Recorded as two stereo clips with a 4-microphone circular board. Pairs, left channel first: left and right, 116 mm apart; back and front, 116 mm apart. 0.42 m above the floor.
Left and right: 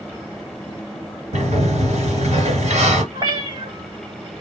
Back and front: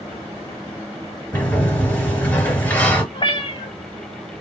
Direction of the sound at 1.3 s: 105° right.